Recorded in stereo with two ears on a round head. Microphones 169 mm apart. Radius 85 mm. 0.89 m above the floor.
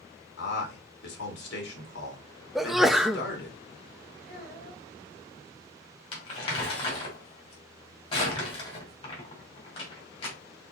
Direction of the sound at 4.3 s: 50° left (ahead or behind).